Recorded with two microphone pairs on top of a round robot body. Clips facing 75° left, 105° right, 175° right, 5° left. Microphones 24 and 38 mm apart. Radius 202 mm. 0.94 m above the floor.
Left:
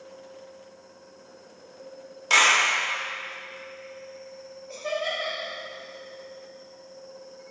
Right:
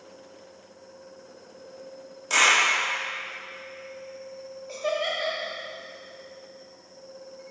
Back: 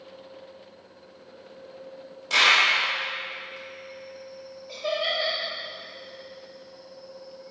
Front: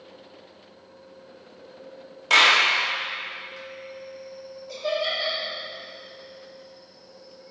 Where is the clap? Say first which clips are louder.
Left 1 dB, front 2 dB; 25° left, 1.5 m.